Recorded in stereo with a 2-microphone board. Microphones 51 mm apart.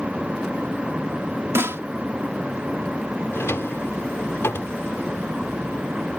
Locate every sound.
1.6 s a snare drum: 55° right (ahead or behind)
3.3 s a drawer: 55° left (ahead or behind)